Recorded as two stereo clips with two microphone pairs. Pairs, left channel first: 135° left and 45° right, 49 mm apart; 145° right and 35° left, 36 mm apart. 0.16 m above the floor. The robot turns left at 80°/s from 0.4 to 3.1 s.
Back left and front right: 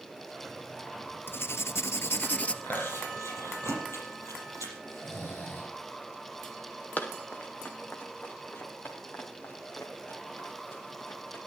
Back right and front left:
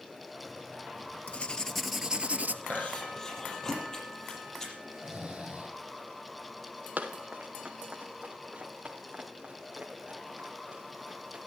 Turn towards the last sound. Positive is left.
turn(degrees=100)